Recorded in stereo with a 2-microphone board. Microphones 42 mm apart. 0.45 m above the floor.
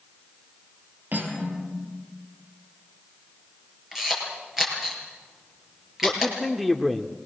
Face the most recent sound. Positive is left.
turn(degrees=-5)  # may be behind; listen again after turning